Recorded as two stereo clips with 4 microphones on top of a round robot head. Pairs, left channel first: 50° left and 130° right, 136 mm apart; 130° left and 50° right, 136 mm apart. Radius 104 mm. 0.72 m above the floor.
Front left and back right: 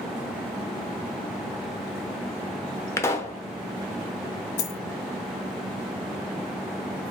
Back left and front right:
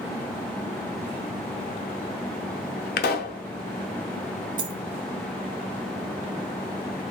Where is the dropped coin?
10° left, 1.2 m.